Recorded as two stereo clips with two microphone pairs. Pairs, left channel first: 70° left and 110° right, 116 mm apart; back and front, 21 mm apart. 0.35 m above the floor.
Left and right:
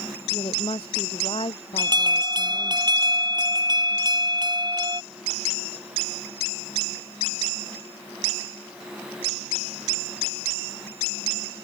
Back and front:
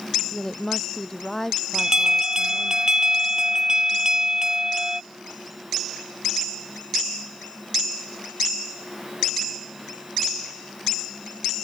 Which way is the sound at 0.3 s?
110° left.